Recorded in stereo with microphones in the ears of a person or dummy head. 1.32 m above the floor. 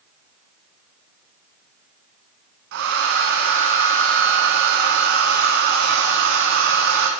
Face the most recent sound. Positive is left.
turn(degrees=-65)  # may be behind; listen again after turning